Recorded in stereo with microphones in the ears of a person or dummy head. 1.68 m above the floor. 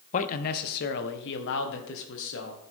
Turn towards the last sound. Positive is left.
turn(degrees=80)